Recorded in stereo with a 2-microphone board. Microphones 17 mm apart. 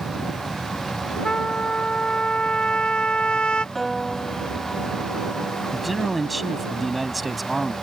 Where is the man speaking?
Centre (ahead or behind).